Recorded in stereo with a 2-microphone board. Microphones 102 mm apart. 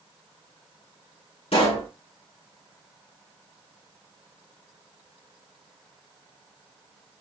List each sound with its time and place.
1.5 s a pop: 80° left, 3.5 m